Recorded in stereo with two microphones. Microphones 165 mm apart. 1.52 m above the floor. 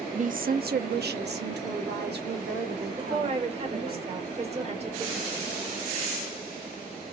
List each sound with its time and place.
0.1 s a woman speaking: 45° right (ahead or behind), 0.5 m; by 4.0 s 75° right (ahead or behind), 2.5 m
3.0 s a woman speaking: 40° right (ahead or behind), 1.3 m